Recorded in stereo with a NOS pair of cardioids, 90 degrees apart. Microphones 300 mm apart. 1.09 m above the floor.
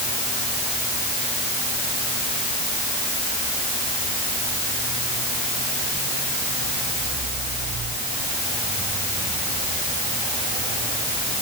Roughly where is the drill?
I don't hear a drill.